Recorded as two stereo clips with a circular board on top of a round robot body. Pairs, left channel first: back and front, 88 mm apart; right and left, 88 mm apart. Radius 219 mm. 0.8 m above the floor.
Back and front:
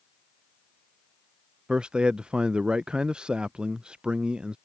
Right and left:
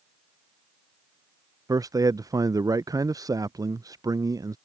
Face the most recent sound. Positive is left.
turn(degrees=75)